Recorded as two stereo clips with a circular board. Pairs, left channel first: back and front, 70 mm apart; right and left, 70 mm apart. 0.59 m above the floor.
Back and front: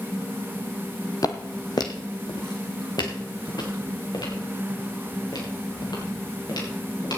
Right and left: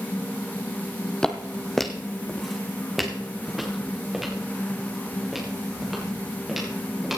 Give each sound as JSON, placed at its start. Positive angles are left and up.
{"t": 1.2, "sound": "footsteps", "azimuth_deg": -170, "distance_m": 1.0}